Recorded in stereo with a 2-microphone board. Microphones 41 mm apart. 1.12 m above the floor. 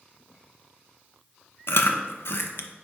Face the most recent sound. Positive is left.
turn(degrees=65)  # may be behind; listen again after turning